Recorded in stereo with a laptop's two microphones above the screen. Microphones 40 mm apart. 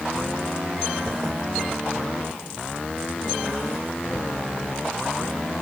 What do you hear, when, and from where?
Only background noise.